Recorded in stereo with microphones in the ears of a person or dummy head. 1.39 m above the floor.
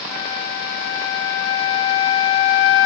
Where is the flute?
70° left (ahead or behind), 1.8 m.